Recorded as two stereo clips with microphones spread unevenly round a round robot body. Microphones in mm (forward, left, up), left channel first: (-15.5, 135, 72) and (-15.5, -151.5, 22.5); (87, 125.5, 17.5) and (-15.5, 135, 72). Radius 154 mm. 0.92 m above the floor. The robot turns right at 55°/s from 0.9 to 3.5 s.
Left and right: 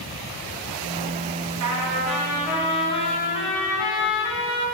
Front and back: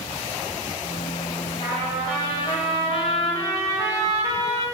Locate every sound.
1.6 s a trumpet: 55° right, 2.5 m; by 4.7 s 50° left, 2.5 m